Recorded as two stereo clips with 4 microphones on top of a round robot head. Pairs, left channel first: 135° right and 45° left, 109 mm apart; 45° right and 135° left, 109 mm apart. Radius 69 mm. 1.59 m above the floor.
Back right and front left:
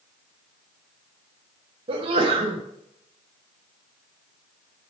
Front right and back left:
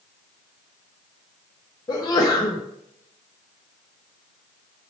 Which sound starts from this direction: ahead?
A sneeze, at 1.9 s.